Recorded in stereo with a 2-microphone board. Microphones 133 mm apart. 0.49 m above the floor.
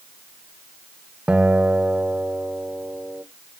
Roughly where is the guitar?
Centre.